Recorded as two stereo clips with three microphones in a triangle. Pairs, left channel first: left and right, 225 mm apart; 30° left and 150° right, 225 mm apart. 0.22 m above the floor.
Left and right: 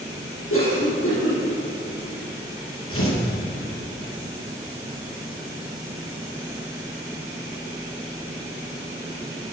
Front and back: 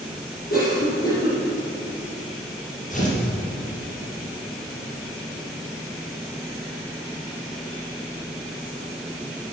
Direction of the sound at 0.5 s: 80° left.